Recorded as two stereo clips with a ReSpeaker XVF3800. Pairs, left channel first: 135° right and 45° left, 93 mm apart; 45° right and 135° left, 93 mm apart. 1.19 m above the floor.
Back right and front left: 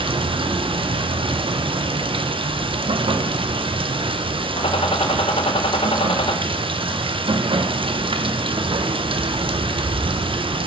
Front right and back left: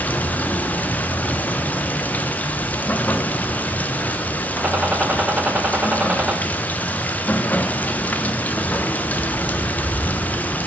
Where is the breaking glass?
I don't hear breaking glass.